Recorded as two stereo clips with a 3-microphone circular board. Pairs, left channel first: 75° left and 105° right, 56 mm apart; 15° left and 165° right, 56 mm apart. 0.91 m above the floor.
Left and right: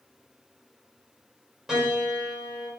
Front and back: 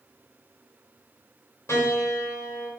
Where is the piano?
20° right, 4 m.